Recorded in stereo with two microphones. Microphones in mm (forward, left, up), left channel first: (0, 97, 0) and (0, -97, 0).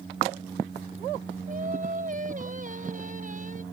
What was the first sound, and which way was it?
Singing, 40° right (ahead or behind).